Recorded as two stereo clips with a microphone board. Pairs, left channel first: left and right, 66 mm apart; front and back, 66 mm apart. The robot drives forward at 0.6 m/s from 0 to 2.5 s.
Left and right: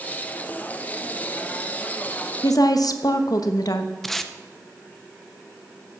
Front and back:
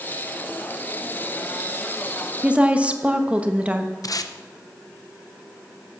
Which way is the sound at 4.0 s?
5° left.